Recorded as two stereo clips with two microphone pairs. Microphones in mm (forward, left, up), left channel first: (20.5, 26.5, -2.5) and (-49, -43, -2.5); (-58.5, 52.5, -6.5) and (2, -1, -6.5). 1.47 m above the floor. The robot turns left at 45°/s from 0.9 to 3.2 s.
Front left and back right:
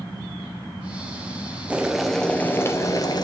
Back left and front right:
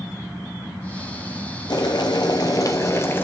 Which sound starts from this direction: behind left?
Boiling, at 1.7 s.